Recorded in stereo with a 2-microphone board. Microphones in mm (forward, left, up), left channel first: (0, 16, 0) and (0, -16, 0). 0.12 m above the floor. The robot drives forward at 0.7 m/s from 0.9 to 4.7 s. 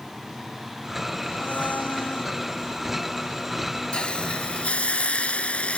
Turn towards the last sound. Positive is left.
turn(degrees=45)  # may be behind; listen again after turning